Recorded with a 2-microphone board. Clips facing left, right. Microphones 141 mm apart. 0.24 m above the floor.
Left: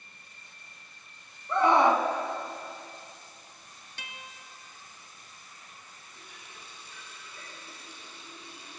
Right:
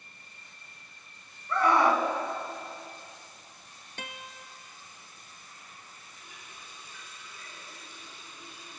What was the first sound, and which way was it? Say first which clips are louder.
A scream: left 2 dB; 25° left (ahead or behind).